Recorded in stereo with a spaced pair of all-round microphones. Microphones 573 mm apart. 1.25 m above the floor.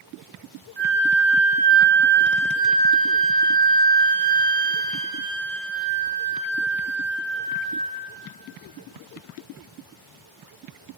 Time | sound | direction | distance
0.8 | a flute | 45° right (ahead or behind) | 2.5 m